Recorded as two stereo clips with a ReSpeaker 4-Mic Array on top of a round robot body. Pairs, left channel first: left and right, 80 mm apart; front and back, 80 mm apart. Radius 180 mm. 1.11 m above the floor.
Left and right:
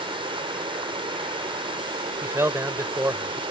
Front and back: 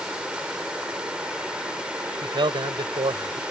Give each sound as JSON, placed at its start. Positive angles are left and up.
{"t": 0.0, "sound": "running water", "azimuth_deg": -100}
{"t": 2.2, "sound": "a man speaking", "azimuth_deg": -150}